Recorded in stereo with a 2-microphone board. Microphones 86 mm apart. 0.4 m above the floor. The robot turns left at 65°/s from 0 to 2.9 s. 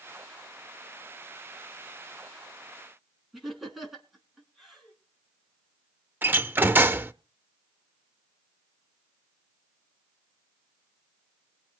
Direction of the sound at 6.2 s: 20° right (ahead or behind).